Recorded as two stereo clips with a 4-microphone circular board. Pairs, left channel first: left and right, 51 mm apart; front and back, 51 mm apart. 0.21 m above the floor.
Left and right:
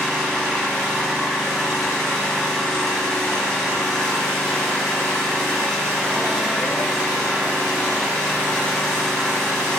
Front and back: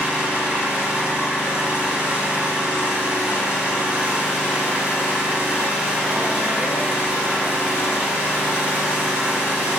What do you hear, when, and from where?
0.0 s an engine running: 155° left, 0.9 m